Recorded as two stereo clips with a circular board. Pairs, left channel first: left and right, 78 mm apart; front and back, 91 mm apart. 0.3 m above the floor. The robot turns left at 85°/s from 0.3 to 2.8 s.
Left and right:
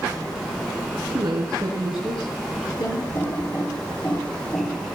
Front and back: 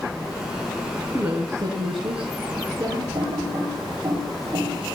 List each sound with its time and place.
1.1 s a woman speaking: 105° right, 4 m; by 3.0 s 115° left, 4 m
3.1 s typing on a keyboard: 145° left, 7 m